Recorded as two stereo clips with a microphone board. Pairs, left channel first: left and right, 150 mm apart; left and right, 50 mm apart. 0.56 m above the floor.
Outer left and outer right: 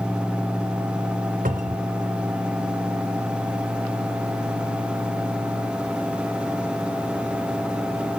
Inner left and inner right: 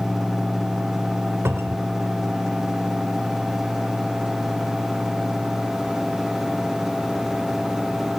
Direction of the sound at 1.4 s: 65° right (ahead or behind).